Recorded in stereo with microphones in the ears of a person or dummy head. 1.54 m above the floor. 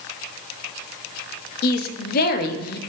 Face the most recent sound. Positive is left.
turn(degrees=50)  # may be behind; listen again after turning